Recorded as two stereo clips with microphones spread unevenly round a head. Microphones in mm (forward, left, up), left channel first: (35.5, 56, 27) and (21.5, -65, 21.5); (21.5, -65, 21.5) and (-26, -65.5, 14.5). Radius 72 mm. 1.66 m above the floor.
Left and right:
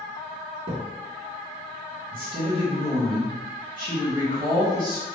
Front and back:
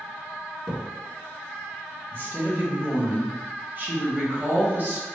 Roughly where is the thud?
Right.